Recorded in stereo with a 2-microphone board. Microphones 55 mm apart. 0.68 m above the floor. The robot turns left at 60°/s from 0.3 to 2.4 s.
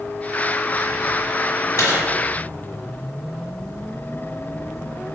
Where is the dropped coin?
55° left (ahead or behind), 1.3 m; by 2.1 s 40° left (ahead or behind), 1.3 m.